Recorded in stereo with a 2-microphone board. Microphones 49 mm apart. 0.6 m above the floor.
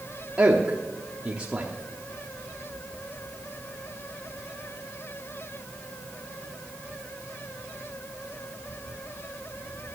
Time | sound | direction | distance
0.4 | a man speaking | 25° right (ahead or behind) | 1.1 m